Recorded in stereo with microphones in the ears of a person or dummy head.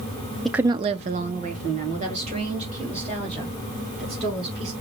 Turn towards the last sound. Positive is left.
turn(degrees=-35)  # may be behind; listen again after turning